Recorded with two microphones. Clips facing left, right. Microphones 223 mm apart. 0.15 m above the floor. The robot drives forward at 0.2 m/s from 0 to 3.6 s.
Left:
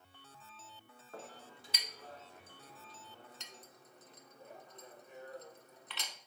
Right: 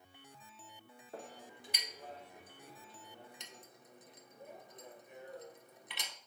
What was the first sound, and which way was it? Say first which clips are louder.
A clink: right 1 dB; 20° right (ahead or behind).